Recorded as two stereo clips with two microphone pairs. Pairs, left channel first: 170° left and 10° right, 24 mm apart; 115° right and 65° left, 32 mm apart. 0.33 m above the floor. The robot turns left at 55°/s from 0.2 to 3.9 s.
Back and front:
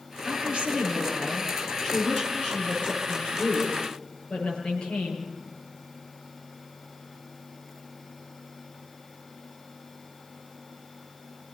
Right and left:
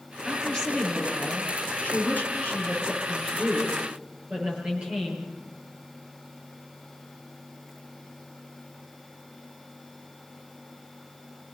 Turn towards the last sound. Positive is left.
turn(degrees=120)